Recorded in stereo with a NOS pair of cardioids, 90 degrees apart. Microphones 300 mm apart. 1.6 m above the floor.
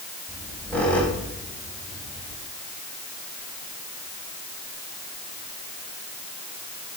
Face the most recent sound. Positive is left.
turn(degrees=5)